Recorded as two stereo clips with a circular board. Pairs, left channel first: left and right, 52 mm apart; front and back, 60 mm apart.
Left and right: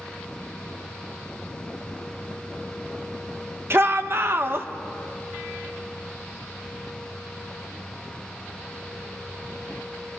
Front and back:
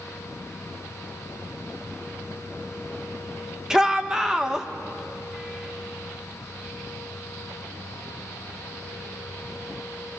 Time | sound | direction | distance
3.7 | a shout | 105° right | 1.1 m